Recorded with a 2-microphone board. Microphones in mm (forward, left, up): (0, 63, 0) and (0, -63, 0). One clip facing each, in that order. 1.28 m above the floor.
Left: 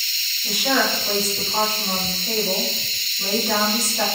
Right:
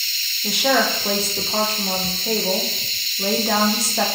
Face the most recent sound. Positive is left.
turn(degrees=-70)  # may be behind; listen again after turning